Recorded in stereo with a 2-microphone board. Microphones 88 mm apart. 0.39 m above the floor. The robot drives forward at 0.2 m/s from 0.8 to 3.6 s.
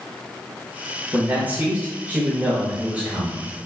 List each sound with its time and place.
1.1 s a man speaking: 20° right (ahead or behind), 0.9 m; by 3.4 s 15° right (ahead or behind), 1.1 m